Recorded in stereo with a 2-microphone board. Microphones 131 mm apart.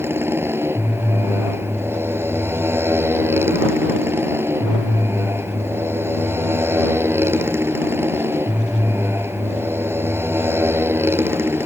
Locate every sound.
0.0 s a motorcycle: 20° right (ahead or behind)